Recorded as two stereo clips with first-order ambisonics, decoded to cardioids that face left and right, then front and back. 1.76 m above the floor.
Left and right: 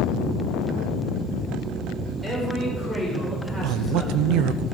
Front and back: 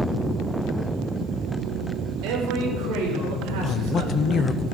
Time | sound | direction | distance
2.2 | a man speaking | 170° right | 7.5 m
3.6 | a man speaking | 65° right | 0.9 m